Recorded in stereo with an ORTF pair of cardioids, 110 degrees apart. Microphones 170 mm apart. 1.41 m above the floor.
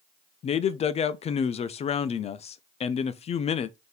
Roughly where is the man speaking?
Ahead left.